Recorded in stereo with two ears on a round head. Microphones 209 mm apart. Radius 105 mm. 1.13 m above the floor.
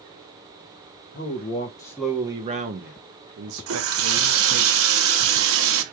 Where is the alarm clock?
I don't hear an alarm clock.